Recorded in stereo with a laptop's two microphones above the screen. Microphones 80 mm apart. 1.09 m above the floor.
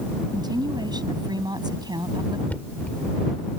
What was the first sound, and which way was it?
A woman speaking, 60° right (ahead or behind).